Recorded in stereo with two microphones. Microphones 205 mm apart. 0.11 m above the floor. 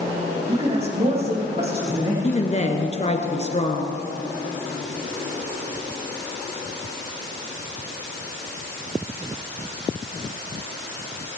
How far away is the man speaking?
About 5 m.